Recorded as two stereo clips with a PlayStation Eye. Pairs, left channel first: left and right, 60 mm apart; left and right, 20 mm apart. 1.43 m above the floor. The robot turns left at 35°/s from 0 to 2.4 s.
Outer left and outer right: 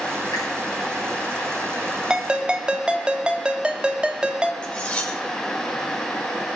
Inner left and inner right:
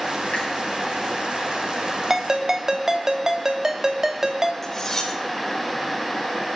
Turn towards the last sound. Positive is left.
turn(degrees=20)  # may be behind; listen again after turning